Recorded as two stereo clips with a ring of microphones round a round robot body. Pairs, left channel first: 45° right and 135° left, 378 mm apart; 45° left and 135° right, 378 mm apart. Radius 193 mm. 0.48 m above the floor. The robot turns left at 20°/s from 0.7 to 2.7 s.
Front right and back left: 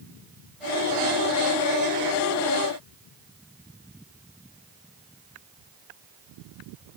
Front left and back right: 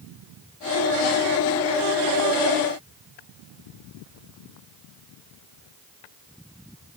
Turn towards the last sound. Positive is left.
No sound to turn to.